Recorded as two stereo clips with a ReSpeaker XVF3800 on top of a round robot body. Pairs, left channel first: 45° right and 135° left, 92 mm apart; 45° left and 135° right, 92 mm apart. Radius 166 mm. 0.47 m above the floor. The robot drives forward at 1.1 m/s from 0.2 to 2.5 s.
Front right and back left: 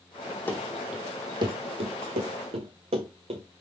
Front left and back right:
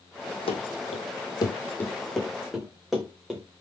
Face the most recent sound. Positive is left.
turn(degrees=140)